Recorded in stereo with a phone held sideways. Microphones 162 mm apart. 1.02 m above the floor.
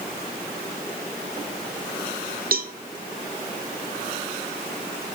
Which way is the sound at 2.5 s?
65° right (ahead or behind).